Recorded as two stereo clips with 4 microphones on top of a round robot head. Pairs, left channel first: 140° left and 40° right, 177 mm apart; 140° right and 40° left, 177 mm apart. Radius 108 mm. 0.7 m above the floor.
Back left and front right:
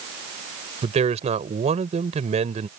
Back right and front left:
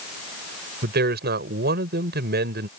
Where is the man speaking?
10° left.